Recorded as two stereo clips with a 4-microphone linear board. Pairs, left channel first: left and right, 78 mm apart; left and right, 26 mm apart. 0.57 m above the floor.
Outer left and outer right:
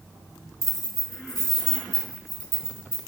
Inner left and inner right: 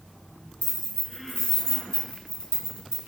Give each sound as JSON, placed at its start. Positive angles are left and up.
{"t": 0.6, "sound": "keys jangling", "side_deg": 45, "distance_m": 0.8}